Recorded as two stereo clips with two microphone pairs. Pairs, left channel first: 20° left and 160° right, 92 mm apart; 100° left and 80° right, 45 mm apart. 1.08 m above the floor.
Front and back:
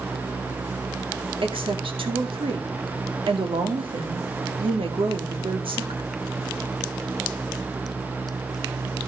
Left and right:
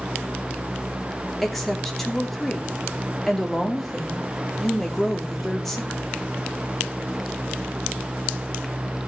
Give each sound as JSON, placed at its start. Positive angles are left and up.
{"t": 1.4, "sound": "a woman speaking", "azimuth_deg": -175, "distance_m": 2.5}